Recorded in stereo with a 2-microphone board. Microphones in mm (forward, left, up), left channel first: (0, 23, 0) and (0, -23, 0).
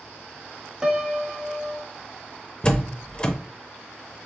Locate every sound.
0.8 s a piano: 20° right (ahead or behind), 0.6 m
2.6 s a door slam: 20° left (ahead or behind), 0.6 m